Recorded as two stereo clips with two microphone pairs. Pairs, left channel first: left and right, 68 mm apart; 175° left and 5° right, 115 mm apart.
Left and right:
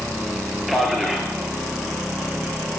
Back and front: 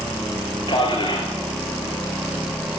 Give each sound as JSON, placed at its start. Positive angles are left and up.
{"t": 0.7, "sound": "a man speaking", "azimuth_deg": -175, "distance_m": 2.5}